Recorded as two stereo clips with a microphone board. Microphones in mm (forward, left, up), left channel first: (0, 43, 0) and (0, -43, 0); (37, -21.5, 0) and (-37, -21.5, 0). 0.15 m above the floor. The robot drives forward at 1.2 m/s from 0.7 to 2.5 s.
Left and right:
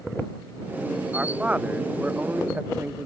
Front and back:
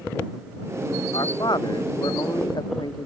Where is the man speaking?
15° right; by 3.1 s 20° right.